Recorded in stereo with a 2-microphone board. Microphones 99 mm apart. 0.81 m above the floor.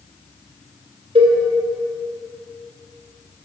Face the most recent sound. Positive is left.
turn(degrees=-80)